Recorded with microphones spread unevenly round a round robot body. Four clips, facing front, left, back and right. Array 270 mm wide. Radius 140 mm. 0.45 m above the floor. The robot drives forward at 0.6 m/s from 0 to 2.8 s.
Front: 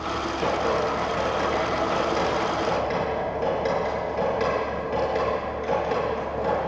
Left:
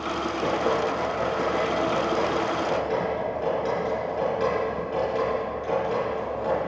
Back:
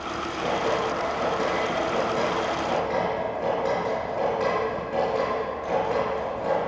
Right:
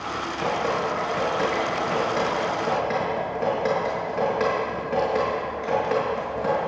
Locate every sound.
0.4 s dripping: 80° right, 6.5 m; by 6.6 s 90° right, 6.5 m